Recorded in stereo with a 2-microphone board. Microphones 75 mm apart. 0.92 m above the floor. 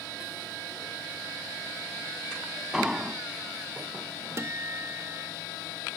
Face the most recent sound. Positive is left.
turn(degrees=-35)  # may be behind; listen again after turning